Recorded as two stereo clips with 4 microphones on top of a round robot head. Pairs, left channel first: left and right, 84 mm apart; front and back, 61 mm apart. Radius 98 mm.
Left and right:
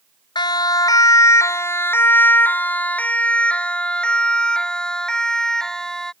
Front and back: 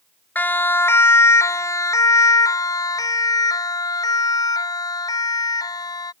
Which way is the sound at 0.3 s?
60° left.